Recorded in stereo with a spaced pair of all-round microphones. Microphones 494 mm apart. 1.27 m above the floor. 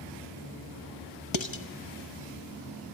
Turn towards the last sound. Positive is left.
turn(degrees=65)  # may be behind; listen again after turning